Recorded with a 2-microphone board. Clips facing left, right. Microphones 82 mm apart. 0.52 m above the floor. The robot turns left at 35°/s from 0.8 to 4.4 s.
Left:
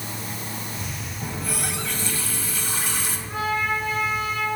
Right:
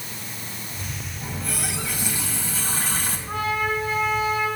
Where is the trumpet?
120° right, 5.5 m; by 4.5 s 160° right, 5.5 m.